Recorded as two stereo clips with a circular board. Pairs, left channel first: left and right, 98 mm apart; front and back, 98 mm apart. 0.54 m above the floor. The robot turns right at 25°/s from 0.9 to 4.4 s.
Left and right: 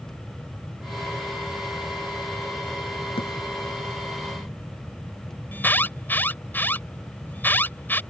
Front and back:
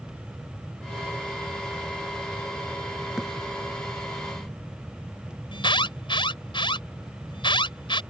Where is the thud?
95° left; by 3.3 s 100° left.